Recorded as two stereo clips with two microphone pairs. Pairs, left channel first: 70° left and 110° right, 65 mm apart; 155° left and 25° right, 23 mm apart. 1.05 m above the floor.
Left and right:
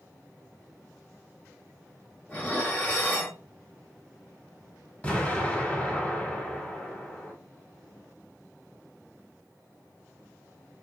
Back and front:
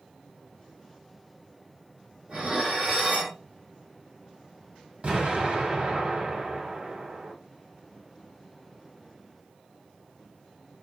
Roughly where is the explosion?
Ahead.